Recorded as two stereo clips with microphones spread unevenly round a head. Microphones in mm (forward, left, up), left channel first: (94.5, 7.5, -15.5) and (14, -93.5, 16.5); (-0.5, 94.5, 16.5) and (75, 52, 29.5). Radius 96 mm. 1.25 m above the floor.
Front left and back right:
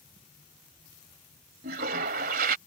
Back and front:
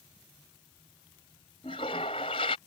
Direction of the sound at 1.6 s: 150° right.